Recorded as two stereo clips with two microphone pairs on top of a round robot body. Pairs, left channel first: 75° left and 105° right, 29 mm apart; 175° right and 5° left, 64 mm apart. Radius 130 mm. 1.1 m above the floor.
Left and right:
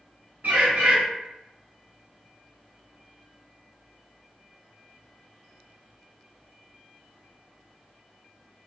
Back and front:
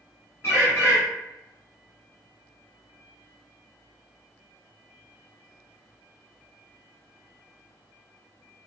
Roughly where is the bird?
Behind right.